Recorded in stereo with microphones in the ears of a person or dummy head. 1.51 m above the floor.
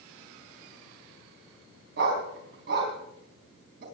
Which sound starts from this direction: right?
A dog barking, at 2.0 s.